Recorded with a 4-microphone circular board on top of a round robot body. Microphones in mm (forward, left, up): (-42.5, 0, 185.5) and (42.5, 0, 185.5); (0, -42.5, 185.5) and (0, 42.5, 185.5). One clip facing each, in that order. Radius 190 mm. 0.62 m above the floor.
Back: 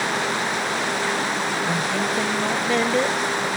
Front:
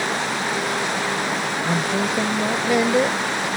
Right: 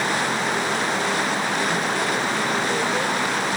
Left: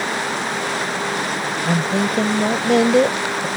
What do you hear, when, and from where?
1.6 s a woman speaking: 80° left